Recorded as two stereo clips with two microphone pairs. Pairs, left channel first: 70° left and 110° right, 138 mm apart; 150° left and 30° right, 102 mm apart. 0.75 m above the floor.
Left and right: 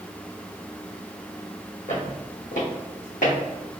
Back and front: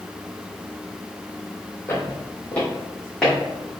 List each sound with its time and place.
1.9 s footsteps: 85° left, 1.7 m; by 3.8 s 60° left, 2.5 m